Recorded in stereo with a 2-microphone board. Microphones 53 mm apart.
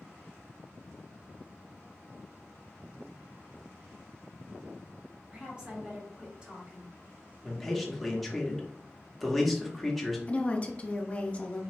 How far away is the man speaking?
About 1.0 m.